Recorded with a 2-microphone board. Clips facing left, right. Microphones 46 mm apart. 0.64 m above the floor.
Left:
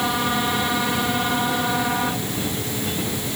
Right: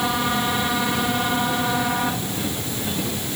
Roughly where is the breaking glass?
No breaking glass in this recording.